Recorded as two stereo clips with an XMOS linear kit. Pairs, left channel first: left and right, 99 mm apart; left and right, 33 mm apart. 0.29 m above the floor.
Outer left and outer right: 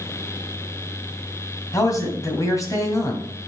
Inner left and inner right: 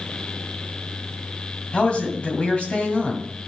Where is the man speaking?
35° left (ahead or behind), 2.0 m.